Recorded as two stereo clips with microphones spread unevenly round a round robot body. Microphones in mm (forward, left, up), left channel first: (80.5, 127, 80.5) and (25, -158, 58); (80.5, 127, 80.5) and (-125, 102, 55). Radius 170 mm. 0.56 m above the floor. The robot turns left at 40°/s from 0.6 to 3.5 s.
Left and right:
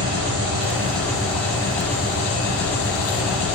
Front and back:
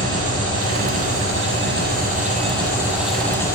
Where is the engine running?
160° right, 7 m; by 3.6 s 85° left, 7 m.